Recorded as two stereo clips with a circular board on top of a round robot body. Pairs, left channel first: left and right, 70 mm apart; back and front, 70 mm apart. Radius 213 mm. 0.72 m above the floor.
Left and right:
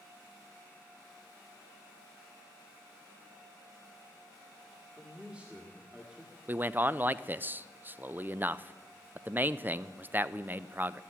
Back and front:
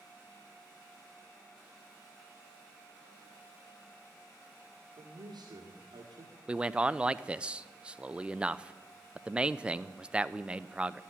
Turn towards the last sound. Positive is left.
turn(degrees=-60)